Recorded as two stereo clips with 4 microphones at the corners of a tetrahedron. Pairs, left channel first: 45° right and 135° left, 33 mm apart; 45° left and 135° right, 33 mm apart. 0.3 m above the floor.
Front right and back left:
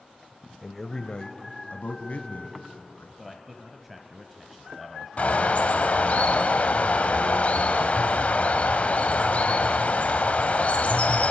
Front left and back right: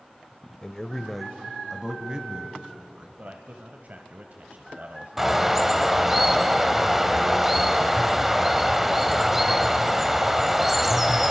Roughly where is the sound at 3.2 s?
Behind right.